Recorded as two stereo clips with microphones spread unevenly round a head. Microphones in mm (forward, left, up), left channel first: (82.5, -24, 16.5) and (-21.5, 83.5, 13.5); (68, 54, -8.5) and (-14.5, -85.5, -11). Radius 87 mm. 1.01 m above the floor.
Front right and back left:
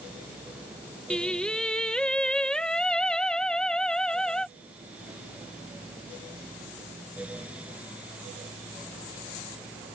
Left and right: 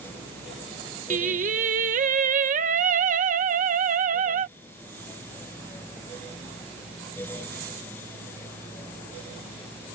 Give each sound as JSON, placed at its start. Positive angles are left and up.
{"t": 1.1, "sound": "singing", "azimuth_deg": -130}